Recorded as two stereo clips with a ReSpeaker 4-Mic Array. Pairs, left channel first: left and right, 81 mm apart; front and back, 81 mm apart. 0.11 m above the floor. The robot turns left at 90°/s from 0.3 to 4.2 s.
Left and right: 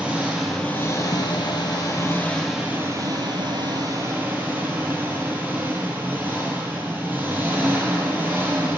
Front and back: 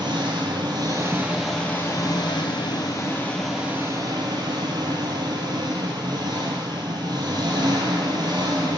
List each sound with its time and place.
0.0 s an engine running: 165° right, 1.1 m; by 8.8 s 155° right, 1.1 m